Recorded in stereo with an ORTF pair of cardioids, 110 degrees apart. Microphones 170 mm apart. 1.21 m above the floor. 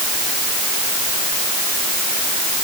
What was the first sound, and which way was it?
Only background noise.